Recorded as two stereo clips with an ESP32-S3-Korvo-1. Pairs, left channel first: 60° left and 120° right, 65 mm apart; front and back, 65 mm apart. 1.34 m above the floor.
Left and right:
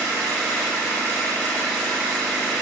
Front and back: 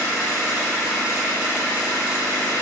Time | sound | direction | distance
0.0 | an engine running | 10° right | 1.1 m